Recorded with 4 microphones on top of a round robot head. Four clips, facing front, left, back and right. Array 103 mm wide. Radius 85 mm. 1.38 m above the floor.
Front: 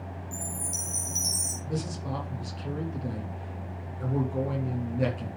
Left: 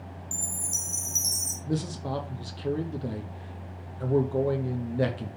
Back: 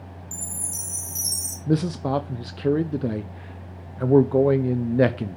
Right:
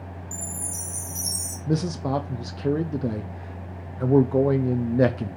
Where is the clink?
No clink in this recording.